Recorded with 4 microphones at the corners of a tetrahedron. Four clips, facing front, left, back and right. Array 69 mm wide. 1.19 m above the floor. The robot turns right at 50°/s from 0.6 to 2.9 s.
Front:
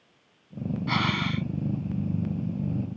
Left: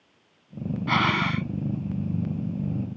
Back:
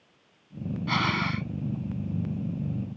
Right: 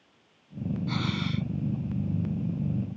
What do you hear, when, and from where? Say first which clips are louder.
0.9 s breathing: left 12 dB, back 1 dB; 85° left; by 1.5 s 115° left